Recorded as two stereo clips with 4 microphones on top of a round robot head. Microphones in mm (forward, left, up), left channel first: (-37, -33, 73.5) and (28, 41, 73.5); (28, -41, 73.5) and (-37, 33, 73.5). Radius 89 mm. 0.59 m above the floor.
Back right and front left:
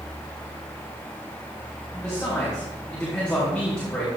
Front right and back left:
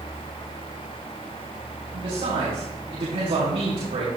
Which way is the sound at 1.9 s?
145° left.